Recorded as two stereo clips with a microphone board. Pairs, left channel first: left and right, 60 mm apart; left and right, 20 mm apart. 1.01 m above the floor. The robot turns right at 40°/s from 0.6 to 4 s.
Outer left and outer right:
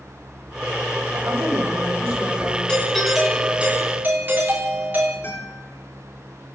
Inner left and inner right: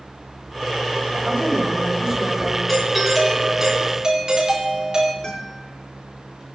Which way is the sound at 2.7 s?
165° left.